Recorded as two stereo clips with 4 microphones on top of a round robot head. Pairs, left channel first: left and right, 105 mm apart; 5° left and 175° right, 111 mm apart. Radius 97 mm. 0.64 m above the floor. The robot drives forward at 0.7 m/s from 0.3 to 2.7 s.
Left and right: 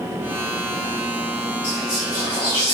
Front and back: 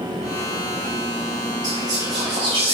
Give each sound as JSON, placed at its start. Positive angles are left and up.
{"t": 1.6, "sound": "whispering", "azimuth_deg": 155, "distance_m": 2.5}